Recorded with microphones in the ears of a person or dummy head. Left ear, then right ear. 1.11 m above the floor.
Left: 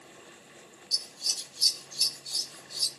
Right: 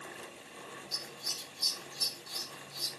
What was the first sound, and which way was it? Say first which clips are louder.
Scissors: left 8 dB; 40° left (ahead or behind).